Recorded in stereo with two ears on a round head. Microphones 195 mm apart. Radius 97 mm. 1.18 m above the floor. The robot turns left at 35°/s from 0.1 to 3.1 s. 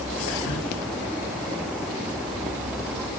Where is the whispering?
60° left (ahead or behind), 2 m; by 0.7 s 70° left (ahead or behind), 2 m.